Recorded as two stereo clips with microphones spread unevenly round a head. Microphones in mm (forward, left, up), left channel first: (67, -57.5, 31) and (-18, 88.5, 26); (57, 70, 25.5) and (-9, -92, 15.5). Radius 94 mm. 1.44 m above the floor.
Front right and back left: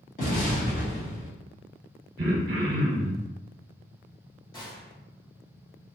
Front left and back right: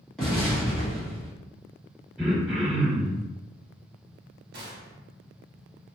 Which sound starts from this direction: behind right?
A gunshot, at 4.5 s.